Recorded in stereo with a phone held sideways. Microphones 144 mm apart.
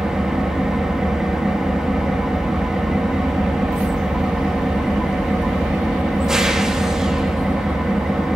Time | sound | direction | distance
0.0 | an engine running | 5° right (ahead or behind) | 1.5 m